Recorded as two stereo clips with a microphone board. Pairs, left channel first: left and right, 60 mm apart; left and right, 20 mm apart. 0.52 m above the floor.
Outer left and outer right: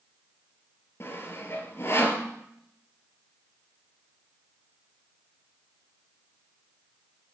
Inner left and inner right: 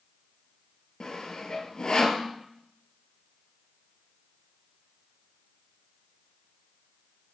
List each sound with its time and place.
1.0 s sawing: 45° left (ahead or behind), 3 m